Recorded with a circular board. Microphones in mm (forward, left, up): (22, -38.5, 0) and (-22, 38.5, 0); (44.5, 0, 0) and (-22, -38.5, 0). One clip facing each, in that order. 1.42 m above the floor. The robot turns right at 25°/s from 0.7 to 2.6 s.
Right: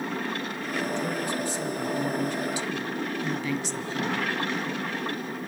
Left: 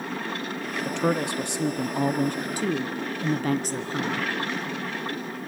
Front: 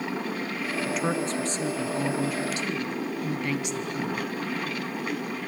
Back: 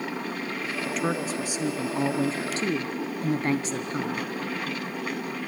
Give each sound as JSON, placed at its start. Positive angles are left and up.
{"t": 0.8, "sound": "a woman speaking", "azimuth_deg": 115, "distance_m": 0.5}